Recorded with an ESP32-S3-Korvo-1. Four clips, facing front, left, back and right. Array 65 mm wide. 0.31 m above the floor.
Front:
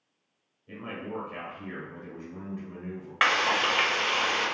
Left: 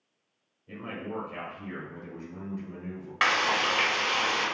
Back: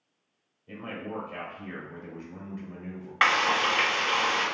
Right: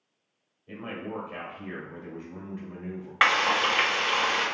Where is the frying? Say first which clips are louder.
Right 2 dB, back 1 dB; 80° right, 0.9 m.